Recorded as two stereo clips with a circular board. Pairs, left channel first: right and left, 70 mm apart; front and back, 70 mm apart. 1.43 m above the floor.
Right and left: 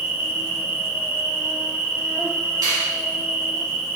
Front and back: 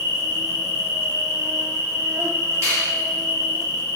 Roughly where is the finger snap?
Behind left.